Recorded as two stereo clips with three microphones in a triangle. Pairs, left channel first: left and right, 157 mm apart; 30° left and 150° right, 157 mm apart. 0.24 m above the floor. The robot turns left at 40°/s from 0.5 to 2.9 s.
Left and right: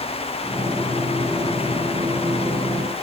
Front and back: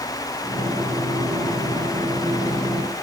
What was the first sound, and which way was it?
Only background noise.